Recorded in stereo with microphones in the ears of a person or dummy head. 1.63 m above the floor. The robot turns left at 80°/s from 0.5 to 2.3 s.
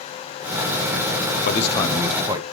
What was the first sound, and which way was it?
A man speaking, 50° left.